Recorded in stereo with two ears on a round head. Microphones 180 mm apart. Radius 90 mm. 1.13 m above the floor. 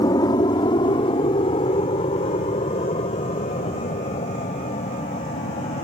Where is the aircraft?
20° left (ahead or behind); by 5.8 s 35° left (ahead or behind).